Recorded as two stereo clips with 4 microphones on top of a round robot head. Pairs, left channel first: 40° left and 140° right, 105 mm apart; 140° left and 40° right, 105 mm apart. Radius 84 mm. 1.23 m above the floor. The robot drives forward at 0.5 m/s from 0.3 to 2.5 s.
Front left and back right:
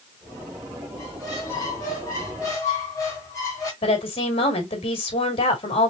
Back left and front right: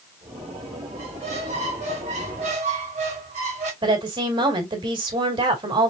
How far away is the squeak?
About 2.5 m.